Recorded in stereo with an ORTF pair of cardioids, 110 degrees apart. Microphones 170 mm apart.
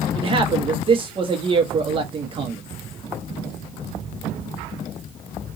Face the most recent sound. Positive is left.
turn(degrees=-30)